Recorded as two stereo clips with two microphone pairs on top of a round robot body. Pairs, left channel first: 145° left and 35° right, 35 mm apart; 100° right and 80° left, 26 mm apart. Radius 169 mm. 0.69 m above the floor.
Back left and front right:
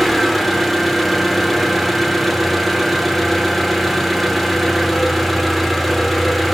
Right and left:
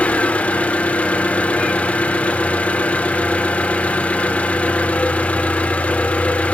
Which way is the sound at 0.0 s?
125° right.